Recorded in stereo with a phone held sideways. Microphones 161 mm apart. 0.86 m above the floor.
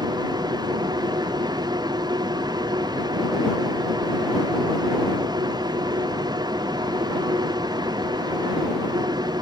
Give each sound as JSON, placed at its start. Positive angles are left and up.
{"t": 0.0, "sound": "a machine running", "side_deg": -25}